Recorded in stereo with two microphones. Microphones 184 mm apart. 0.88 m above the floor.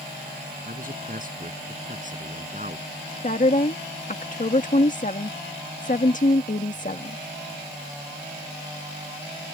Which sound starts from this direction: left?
A woman speaking, at 3.2 s.